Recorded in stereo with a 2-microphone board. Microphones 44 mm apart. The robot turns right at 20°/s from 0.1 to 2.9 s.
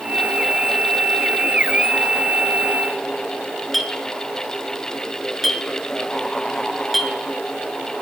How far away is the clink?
About 0.7 m.